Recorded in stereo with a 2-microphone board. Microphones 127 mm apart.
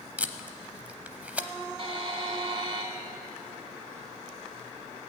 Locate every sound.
0.2 s tape being pulled: 10° right (ahead or behind), 0.6 m
1.8 s a buzzer: 45° right (ahead or behind), 1.6 m